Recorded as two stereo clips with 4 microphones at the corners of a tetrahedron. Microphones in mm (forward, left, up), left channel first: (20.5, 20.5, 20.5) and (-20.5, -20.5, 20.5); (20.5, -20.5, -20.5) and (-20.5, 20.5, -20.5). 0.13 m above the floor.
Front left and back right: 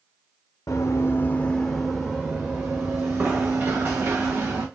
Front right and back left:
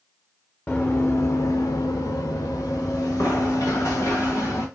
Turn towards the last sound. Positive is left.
turn(degrees=-90)